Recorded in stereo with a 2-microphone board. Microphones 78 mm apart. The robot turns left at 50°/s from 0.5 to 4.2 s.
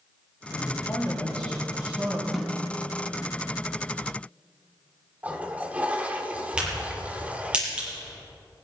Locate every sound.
0.5 s a man speaking: 60° left, 5 m; by 2.2 s 30° right, 5 m
2.3 s a snare drum: 5° left (ahead or behind), 2 m; by 2.6 s 10° right (ahead or behind), 2 m
5.2 s a toilet flushing: 20° right (ahead or behind), 1.1 m
6.6 s a crack: 15° right (ahead or behind), 6 m